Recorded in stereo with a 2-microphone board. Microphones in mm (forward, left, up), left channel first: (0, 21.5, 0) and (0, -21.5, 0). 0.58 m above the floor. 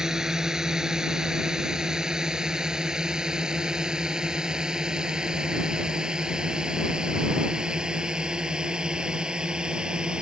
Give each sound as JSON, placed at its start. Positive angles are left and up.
{"t": 0.0, "sound": "a drone", "side_deg": -15}